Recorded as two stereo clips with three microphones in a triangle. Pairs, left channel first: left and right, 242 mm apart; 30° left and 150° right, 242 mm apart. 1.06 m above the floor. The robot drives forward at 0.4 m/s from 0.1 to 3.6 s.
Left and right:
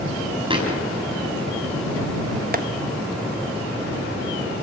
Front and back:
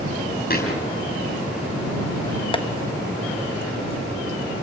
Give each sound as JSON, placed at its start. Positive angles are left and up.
{"t": 0.5, "sound": "a thud", "azimuth_deg": -20, "distance_m": 6.5}
{"t": 2.5, "sound": "tapping", "azimuth_deg": -40, "distance_m": 1.3}